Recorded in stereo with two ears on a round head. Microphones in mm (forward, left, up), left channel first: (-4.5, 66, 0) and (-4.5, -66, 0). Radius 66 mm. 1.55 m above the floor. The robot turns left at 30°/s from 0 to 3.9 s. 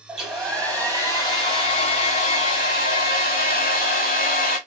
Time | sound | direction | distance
0.1 | a hair dryer | 175° right | 1.8 m